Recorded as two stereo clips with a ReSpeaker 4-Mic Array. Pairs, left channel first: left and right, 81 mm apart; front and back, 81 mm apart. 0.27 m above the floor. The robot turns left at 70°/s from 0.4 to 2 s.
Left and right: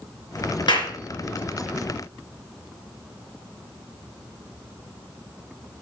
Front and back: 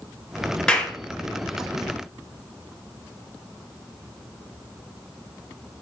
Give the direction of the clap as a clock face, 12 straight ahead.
9 o'clock.